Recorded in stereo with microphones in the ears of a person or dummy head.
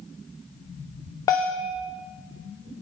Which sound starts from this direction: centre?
A bell, at 1.3 s.